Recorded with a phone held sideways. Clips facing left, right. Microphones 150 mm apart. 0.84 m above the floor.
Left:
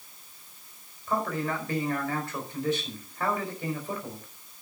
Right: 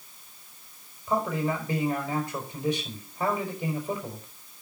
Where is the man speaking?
15° right (ahead or behind), 4.5 m.